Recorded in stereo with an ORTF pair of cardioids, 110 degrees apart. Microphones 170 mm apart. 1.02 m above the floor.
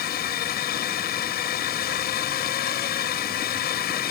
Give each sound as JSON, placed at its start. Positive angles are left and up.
{"t": 0.0, "sound": "a drone", "azimuth_deg": 65}